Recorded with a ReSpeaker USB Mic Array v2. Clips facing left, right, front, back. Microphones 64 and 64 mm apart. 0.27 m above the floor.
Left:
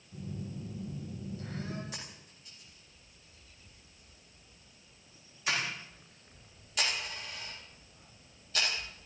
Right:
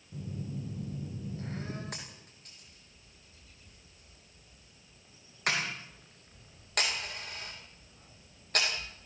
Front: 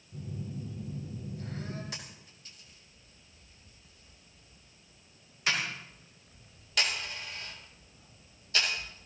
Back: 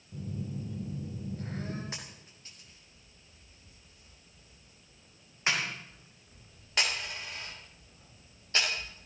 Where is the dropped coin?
120° right, 9 m.